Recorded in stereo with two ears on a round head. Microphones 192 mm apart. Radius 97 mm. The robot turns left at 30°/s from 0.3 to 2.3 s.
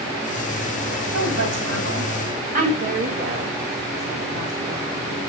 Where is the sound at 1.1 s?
80° right, 6 m; by 2.7 s 45° right (ahead or behind), 6 m.